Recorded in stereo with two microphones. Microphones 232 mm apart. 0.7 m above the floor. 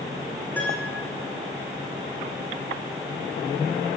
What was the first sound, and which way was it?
A piano, 10° left (ahead or behind).